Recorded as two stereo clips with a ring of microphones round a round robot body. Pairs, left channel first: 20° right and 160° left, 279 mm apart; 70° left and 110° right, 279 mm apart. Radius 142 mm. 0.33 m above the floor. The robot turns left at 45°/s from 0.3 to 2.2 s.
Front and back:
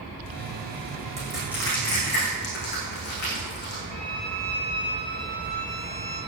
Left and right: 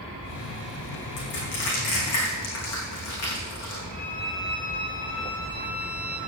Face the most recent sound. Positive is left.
turn(degrees=30)